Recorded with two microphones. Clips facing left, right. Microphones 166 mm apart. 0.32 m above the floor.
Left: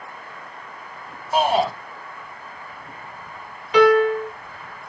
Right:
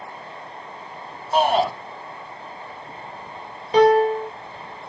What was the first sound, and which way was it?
A shout, 10° left (ahead or behind).